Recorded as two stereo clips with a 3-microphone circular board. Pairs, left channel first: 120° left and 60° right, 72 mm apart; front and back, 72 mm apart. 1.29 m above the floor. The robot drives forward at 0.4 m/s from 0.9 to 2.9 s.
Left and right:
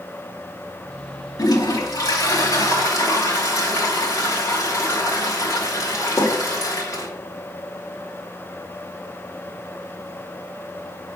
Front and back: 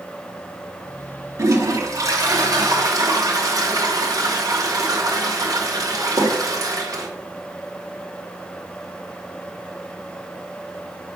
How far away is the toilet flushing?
About 1.5 m.